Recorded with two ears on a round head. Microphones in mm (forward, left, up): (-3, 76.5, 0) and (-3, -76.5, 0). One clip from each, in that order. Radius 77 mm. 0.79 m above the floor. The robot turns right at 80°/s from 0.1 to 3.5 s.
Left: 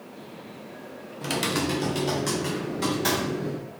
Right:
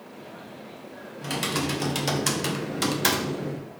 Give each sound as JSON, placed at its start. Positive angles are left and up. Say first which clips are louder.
{"t": 1.2, "sound": "typing on a keyboard", "louder": "left 1 dB", "azimuth_deg": 165, "distance_m": 0.7}